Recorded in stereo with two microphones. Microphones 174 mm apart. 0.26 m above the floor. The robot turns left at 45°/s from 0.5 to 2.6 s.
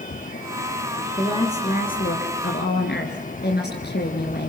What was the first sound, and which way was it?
A woman speaking, 155° left.